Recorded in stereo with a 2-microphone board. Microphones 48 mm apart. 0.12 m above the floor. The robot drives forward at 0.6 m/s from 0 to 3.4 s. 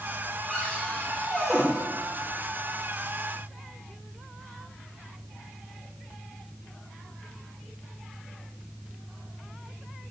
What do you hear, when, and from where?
0.5 s a cupboard door: 15° right (ahead or behind), 5 m; by 1.6 s 20° right (ahead or behind), 4 m